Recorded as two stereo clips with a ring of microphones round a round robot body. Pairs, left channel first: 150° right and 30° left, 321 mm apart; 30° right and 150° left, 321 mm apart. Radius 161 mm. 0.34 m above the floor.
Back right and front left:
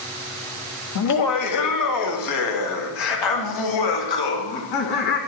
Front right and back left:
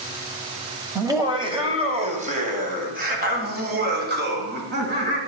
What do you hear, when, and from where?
0.9 s laughter: 130° right, 1.5 m; by 5.2 s 155° right, 3.5 m